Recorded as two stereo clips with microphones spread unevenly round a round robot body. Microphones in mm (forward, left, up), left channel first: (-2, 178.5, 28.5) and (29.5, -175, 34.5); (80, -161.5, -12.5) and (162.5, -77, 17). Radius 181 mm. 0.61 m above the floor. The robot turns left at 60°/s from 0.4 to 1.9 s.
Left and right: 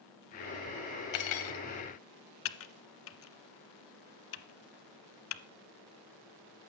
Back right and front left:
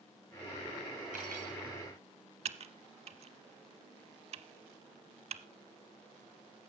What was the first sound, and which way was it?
Cutlery clinking, 115° left.